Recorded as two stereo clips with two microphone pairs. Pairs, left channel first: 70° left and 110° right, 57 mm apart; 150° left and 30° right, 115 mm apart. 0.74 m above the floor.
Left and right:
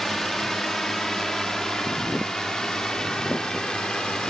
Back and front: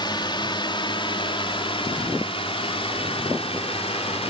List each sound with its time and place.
0.0 s a drone: 150° left; by 4.3 s 145° left